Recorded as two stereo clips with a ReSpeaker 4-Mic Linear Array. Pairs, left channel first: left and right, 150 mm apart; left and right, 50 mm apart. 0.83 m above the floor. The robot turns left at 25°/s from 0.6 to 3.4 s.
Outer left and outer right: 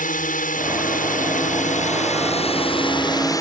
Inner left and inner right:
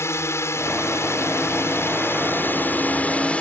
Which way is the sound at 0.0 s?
95° left.